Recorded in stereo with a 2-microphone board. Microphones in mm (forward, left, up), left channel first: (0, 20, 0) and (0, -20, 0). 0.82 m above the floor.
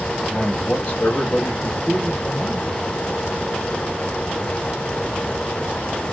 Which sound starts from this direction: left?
A man speaking, at 0.3 s.